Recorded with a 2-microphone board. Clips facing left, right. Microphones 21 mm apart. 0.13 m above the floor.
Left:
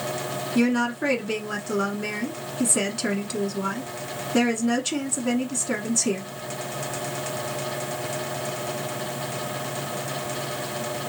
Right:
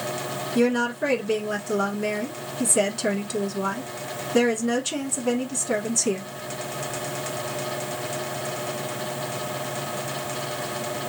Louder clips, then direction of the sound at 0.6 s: Right 1 dB; 5° left (ahead or behind).